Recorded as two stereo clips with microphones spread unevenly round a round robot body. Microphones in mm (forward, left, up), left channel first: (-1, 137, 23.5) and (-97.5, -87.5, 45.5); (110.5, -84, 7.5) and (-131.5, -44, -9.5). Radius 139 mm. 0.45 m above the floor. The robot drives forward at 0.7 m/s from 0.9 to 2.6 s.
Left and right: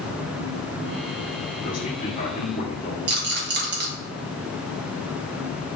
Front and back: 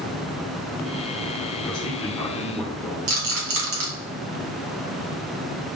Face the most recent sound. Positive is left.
turn(degrees=-160)